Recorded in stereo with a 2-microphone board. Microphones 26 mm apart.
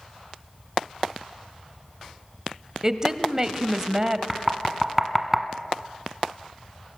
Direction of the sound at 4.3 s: 5° right (ahead or behind).